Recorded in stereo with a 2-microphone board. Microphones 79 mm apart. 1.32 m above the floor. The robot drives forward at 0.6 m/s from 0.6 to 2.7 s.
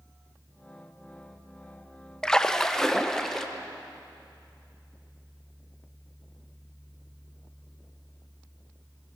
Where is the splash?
10° left (ahead or behind), 0.5 m; by 3.5 s 5° left (ahead or behind), 0.8 m.